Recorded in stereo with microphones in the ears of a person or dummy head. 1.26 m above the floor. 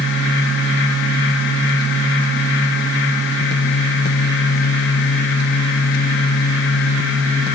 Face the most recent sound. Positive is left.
No sound to turn to.